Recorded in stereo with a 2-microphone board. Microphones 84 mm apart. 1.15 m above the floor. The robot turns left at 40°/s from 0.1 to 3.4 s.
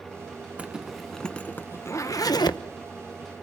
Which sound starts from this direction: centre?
A zipper, at 0.6 s.